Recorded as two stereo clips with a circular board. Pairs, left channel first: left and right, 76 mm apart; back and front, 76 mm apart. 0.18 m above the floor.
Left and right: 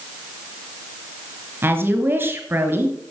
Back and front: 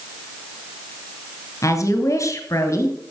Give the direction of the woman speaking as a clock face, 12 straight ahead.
5 o'clock.